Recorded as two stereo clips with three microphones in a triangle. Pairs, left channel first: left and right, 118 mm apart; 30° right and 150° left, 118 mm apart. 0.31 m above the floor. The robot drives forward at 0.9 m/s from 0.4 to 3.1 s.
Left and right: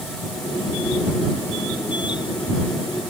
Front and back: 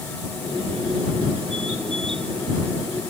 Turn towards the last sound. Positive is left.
No sound to turn to.